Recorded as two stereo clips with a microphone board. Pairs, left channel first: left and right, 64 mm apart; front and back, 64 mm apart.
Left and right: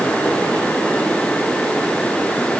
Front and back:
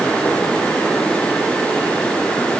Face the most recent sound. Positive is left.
No sound to turn to.